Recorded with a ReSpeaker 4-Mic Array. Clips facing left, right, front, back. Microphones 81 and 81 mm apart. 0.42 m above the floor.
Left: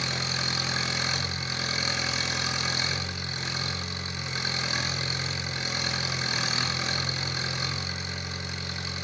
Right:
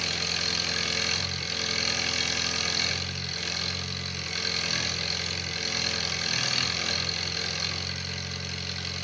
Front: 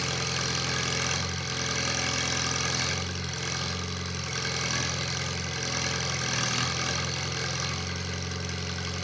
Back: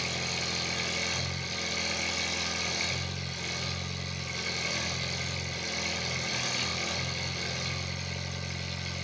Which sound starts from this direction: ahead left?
An engine running, at 0.0 s.